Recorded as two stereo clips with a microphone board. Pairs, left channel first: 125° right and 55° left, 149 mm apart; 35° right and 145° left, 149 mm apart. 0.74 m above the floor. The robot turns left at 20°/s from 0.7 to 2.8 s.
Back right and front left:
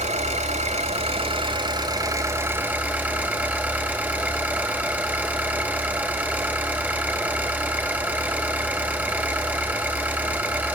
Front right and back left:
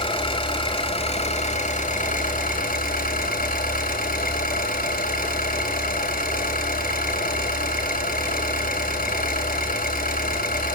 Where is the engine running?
20° left, 4 m; by 10.7 s 25° right, 4 m.